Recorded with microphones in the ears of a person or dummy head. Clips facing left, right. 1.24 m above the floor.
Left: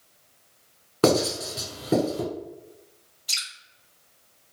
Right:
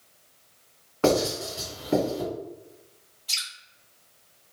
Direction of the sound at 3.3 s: 15° left (ahead or behind).